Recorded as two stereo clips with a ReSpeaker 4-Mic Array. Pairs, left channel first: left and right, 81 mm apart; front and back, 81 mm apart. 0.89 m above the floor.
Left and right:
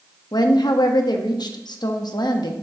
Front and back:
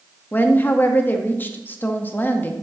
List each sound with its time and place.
0.3 s a woman speaking: 65° left, 0.9 m